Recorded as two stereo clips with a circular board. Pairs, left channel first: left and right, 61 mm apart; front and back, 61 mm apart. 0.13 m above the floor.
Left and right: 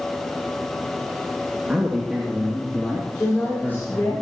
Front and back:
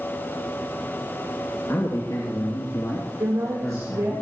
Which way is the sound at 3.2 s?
150° left.